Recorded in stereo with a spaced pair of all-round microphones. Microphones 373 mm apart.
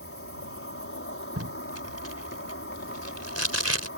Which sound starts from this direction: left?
An insect, at 0.0 s.